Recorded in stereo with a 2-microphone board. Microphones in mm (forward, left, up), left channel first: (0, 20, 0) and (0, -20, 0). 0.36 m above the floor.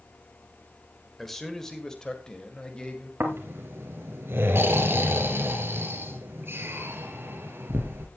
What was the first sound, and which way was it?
A man speaking, 5° left (ahead or behind).